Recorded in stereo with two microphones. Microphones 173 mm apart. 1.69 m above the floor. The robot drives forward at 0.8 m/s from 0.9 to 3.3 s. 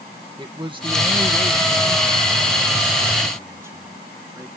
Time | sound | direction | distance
0.4 | a man speaking | 30° right (ahead or behind) | ?